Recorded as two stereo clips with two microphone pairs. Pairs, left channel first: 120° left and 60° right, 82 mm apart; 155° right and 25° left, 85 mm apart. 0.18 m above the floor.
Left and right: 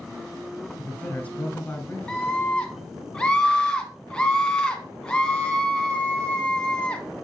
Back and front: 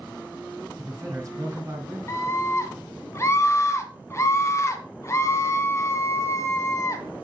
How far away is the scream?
About 1.6 m.